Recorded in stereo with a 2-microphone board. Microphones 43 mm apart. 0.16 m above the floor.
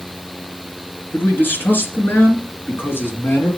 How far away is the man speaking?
About 2.5 m.